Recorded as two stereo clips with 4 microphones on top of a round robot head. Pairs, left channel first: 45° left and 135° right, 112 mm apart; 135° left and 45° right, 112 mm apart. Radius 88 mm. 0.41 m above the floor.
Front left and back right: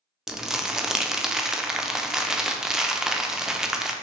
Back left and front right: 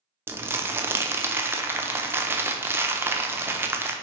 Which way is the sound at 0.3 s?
60° right.